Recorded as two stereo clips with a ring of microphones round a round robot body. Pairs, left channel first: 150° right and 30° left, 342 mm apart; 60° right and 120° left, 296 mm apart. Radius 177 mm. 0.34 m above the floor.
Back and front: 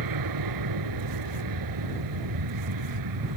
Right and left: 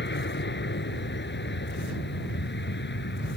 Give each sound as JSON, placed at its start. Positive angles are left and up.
{"t": 0.0, "sound": "an aircraft", "azimuth_deg": -5}